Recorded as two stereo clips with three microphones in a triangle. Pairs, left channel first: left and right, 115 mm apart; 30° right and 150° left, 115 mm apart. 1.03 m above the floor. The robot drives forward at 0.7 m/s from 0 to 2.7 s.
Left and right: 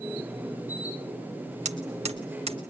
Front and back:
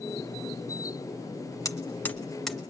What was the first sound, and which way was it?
Hammering, 90° right.